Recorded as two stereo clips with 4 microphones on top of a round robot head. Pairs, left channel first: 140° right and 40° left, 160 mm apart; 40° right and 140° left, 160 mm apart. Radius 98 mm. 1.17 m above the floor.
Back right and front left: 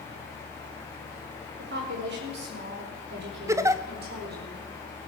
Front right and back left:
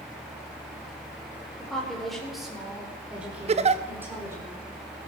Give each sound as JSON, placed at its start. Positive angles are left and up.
{"t": 1.6, "sound": "a woman speaking", "azimuth_deg": 45, "distance_m": 4.5}
{"t": 3.5, "sound": "a giggle", "azimuth_deg": 105, "distance_m": 0.8}